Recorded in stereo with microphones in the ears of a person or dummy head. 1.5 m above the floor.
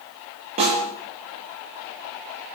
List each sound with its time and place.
0.6 s a snare drum: 35° right (ahead or behind), 7.5 m